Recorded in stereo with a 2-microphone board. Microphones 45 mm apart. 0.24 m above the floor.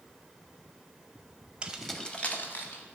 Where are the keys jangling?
20° right (ahead or behind), 0.7 m; by 2.8 s 55° left (ahead or behind), 1.2 m.